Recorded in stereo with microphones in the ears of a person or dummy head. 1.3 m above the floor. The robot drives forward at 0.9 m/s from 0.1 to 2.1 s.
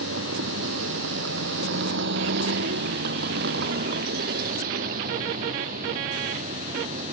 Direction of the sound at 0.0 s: 65° right (ahead or behind).